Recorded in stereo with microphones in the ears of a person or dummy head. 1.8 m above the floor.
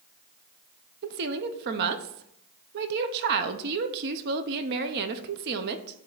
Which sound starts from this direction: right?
A woman speaking, at 1.0 s.